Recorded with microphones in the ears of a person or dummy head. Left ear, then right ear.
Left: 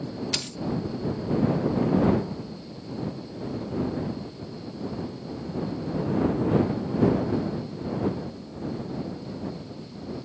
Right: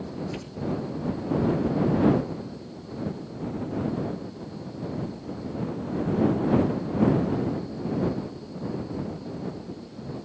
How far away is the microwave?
I don't hear a microwave.